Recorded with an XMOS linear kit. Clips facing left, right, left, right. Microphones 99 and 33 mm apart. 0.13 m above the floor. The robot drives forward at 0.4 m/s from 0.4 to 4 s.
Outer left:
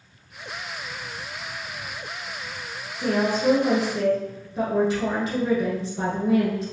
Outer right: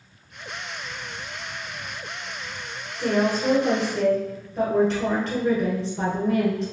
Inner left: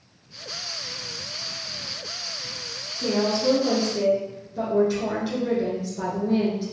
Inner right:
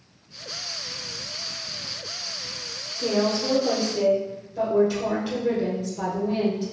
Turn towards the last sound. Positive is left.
turn(degrees=10)  # may be behind; listen again after turning